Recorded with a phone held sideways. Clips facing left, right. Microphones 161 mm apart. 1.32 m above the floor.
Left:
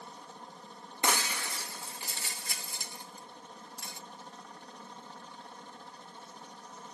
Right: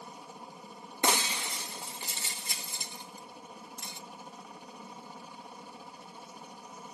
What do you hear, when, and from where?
0.0 s a helicopter: 10° right (ahead or behind)
1.0 s breaking glass: 20° right (ahead or behind)